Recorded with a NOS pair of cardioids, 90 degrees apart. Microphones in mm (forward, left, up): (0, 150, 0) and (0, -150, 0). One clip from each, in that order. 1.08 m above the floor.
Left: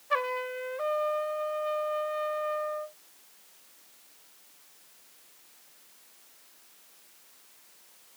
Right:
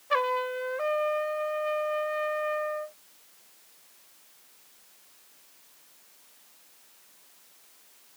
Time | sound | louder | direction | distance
0.1 | a trumpet | right 3 dB | 15° right | ?